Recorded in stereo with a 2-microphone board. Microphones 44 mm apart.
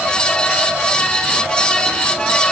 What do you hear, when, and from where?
Only background noise.